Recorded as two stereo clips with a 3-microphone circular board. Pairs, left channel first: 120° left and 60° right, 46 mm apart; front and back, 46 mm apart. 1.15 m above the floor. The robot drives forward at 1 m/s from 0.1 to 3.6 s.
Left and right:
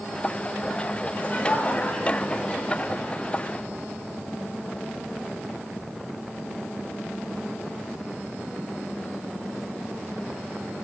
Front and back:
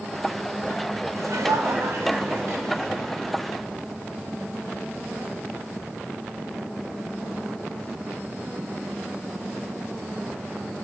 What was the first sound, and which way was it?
Laughter, straight behind.